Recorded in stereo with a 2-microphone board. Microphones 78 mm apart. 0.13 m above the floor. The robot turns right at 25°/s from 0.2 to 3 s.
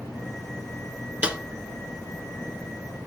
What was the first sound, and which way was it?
A snare drum, 15° right (ahead or behind).